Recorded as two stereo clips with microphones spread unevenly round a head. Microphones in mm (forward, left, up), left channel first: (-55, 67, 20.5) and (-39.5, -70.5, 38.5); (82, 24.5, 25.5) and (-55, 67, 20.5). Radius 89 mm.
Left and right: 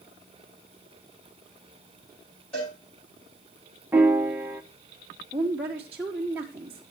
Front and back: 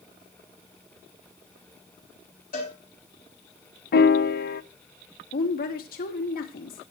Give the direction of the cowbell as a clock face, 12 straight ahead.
12 o'clock.